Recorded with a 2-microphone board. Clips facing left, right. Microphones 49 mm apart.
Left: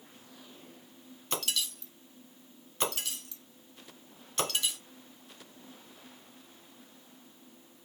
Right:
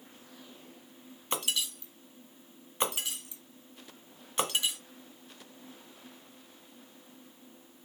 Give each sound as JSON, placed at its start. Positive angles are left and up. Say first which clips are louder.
{"t": 1.3, "sound": "breaking glass", "louder": "right 1 dB", "side_deg": -20, "distance_m": 1.9}